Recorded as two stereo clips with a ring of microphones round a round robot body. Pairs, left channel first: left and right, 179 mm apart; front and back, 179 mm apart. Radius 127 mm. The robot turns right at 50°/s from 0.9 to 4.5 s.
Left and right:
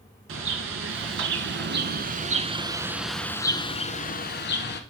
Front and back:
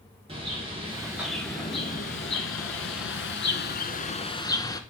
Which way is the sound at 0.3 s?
110° right.